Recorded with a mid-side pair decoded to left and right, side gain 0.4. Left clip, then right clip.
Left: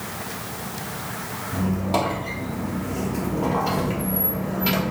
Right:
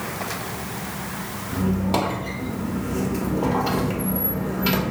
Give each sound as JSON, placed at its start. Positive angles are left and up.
{"t": 1.5, "sound": "a squeak", "azimuth_deg": -25, "distance_m": 1.1}